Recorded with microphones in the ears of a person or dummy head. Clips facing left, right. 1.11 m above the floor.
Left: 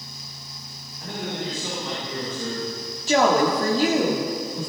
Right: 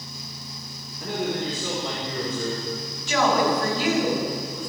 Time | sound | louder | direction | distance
1.0 | a man speaking | right 4 dB | 70° right (ahead or behind) | 4.5 m
3.1 | a woman speaking | left 3 dB | 40° left (ahead or behind) | 2.0 m